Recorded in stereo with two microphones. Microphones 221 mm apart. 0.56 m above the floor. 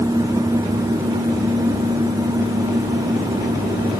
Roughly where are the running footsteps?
No running footsteps in this recording.